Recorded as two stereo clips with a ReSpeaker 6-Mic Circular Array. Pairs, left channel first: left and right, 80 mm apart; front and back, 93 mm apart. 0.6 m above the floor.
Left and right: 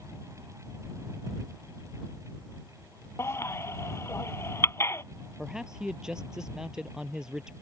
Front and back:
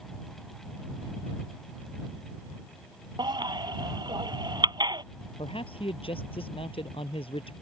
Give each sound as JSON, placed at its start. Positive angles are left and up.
{"t": 3.2, "sound": "a baby crying", "azimuth_deg": 145}
{"t": 5.4, "sound": "a man speaking", "azimuth_deg": -10}